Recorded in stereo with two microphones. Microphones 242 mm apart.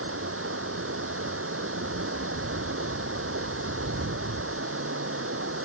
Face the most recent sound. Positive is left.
turn(degrees=-65)  # may be behind; listen again after turning